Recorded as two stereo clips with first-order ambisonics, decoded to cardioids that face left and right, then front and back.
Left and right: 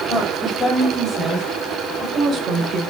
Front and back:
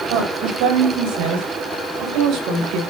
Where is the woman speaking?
165° left, 4 m; by 2.8 s 155° right, 3 m.